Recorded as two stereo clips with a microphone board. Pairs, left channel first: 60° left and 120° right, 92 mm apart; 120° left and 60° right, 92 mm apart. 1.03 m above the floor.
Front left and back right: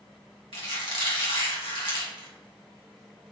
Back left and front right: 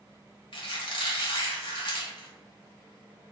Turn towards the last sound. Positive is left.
turn(degrees=85)